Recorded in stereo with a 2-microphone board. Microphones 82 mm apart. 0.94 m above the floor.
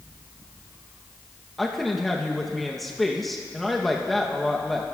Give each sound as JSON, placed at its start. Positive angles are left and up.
{"t": 1.6, "sound": "a woman speaking", "side_deg": 0, "distance_m": 0.8}